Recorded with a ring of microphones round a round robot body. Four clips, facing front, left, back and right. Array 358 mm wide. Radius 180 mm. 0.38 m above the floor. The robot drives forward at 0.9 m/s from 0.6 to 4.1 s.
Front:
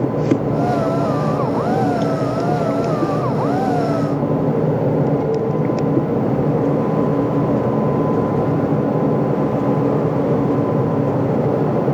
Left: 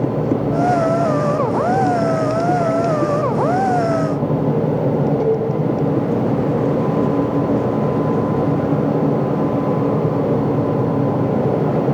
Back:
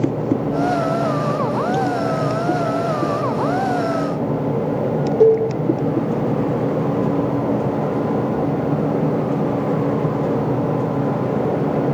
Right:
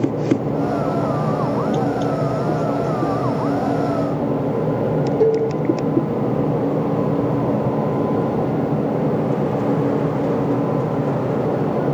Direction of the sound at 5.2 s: 155° right.